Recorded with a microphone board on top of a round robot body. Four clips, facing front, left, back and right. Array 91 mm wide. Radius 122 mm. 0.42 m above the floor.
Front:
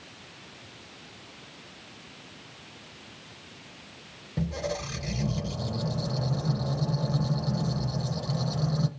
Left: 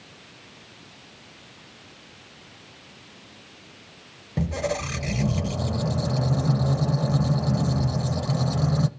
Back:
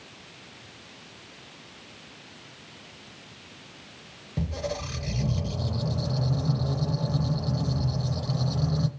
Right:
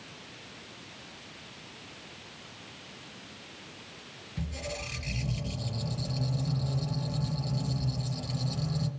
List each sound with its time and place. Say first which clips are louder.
4.4 s a squeak: left 12 dB, even; 90° left, 0.8 m